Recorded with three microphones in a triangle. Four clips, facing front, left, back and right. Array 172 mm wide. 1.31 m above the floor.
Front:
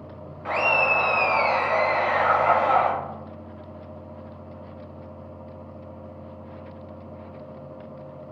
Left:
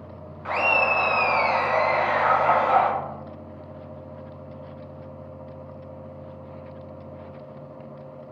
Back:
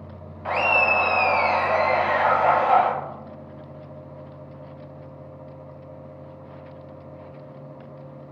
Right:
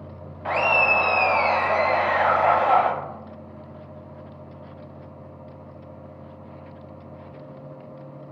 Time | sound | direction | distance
0.5 | laughter | 125° right | 0.7 m